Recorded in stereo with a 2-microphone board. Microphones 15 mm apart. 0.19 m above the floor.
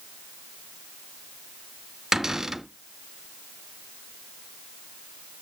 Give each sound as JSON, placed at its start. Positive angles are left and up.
{"t": 2.1, "sound": "a cupboard door", "side_deg": -25, "distance_m": 1.7}